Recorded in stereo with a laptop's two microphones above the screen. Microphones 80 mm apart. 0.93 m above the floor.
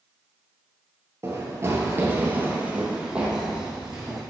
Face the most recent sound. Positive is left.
turn(degrees=-5)  # may be behind; listen again after turning